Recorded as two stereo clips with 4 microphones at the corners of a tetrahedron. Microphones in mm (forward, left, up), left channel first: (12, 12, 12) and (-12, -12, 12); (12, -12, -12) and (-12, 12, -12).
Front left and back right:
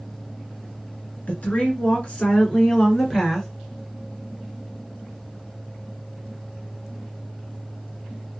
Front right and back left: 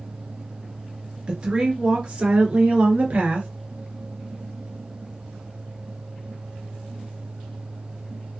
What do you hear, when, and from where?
1.3 s a woman speaking: 80° left, 2 m; by 3.5 s 125° left, 1.9 m